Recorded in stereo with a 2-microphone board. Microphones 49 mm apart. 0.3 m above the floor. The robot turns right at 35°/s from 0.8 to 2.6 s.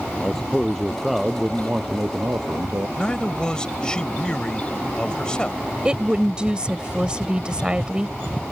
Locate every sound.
0.2 s a man speaking: 175° left; by 2.9 s 120° right
3.0 s a man speaking: 20° left (ahead or behind)
5.8 s a woman speaking: 20° right (ahead or behind)